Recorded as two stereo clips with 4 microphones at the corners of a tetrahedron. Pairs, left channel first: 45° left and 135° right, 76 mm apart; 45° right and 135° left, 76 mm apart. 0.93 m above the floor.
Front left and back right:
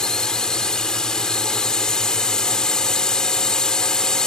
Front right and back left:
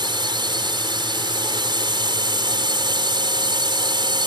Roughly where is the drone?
Behind left.